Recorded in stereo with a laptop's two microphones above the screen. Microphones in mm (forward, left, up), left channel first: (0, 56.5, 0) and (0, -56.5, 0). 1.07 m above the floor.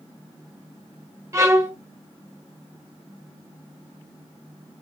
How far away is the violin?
About 1.2 m.